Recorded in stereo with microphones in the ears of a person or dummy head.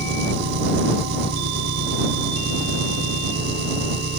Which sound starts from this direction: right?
An engine running, at 0.0 s.